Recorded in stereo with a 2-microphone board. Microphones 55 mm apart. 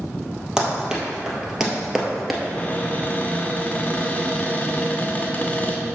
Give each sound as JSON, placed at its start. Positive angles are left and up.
{"t": 0.6, "sound": "running footsteps", "side_deg": -10, "distance_m": 2.0}
{"t": 2.4, "sound": "a cupboard door", "side_deg": 30, "distance_m": 1.1}